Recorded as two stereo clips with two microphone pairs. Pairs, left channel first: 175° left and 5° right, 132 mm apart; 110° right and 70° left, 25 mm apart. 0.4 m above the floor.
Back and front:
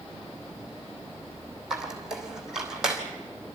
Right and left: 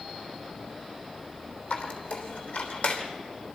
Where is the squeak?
90° right, 3 m.